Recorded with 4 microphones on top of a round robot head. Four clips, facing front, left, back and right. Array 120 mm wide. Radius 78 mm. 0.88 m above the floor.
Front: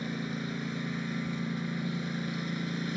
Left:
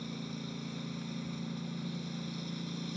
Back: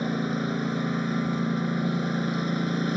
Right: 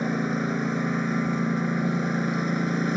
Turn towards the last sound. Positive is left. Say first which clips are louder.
# right 16 dB, back 8 dB
turn(degrees=-125)